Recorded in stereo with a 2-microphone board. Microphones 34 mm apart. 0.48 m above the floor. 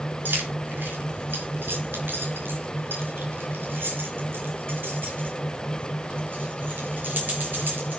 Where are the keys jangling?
65° right (ahead or behind), 4.5 m; by 8.0 s 55° right (ahead or behind), 7 m.